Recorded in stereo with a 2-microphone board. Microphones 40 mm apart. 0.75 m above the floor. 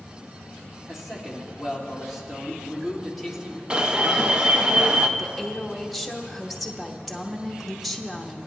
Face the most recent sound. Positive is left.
turn(degrees=0)  # may be behind; listen again after turning